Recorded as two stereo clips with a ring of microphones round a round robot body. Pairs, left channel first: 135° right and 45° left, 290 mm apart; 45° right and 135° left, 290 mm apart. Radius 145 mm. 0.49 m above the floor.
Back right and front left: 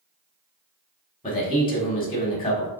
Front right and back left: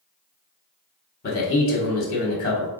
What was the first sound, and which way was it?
A man speaking, 75° right.